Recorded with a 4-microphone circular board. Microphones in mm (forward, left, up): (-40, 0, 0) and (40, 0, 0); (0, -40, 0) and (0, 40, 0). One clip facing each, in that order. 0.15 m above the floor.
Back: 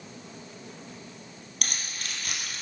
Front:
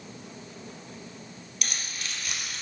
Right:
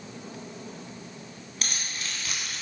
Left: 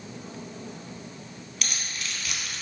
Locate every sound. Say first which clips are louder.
1.6 s keys jangling: even, even; 150° right, 1.9 m